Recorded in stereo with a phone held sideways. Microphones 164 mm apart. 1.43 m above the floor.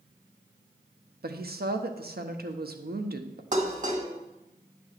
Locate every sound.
1.2 s a woman speaking: 70° right (ahead or behind), 0.8 m
3.5 s dishes clattering: 45° right (ahead or behind), 1.3 m